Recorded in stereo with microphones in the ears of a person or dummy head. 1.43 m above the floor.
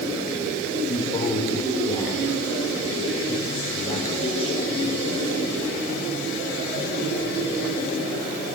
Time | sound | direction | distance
0.9 | a man speaking | 25° left (ahead or behind) | 5 m